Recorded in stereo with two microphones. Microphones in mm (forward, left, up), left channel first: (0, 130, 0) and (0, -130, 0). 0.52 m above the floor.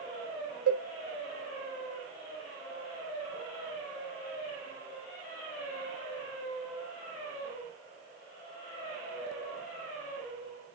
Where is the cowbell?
70° right (ahead or behind), 0.9 m.